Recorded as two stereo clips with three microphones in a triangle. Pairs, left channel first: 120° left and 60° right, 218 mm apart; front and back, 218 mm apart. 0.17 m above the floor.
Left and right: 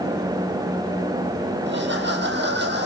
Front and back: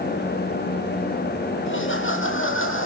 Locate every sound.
1.7 s laughter: 25° right, 5.5 m